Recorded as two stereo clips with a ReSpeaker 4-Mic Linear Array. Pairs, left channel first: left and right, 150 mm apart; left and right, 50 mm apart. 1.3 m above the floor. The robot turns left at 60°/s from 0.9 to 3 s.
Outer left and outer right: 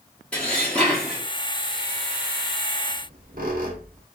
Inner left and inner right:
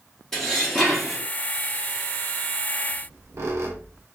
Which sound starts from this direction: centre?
Dishes clattering, at 0.3 s.